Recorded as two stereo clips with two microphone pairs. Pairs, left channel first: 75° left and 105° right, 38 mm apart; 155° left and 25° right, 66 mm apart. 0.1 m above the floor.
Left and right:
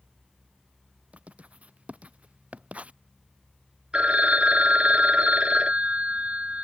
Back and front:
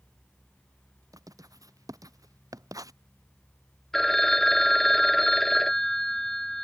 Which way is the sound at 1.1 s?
50° right.